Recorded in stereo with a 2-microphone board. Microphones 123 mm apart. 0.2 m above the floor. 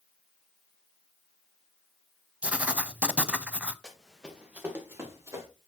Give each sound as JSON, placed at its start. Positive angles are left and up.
{"t": 2.4, "sound": "writing", "side_deg": -10, "distance_m": 0.5}
{"t": 3.8, "sound": "running footsteps", "side_deg": 5, "distance_m": 2.0}